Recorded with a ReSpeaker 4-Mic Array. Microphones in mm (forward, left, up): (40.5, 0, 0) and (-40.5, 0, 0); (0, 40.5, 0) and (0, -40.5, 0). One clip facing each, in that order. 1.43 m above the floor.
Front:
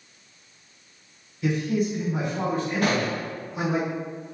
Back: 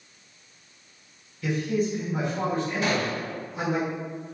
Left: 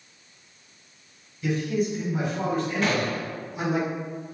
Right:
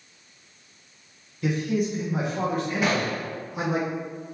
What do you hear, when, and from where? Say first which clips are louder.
1.4 s a man speaking: front 1 dB, even; 70° right, 1.6 m
2.8 s a gunshot: front 2 dB, even; 10° right, 1.1 m